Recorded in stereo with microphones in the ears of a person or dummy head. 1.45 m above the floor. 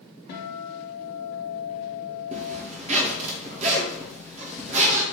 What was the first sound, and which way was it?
A guitar, 50° left (ahead or behind).